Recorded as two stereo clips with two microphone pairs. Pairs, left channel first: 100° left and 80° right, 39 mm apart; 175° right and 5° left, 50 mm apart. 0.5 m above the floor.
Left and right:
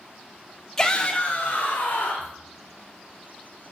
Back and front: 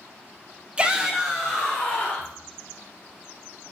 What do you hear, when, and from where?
0.8 s a shout: 40° left, 0.9 m; by 2.3 s 110° left, 1.6 m